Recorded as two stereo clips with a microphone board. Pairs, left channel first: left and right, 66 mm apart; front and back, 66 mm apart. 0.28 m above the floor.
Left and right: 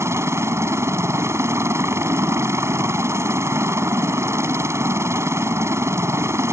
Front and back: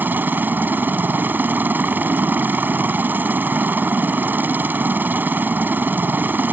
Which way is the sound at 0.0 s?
125° right.